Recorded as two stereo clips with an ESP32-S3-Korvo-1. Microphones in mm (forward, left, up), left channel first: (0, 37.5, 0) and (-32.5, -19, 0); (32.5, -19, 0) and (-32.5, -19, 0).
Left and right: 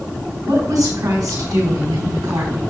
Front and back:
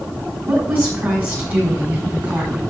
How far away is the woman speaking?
About 5 m.